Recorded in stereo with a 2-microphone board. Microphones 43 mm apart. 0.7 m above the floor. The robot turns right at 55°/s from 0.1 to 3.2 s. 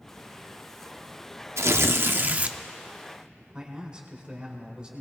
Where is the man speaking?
25° right (ahead or behind), 2.5 m.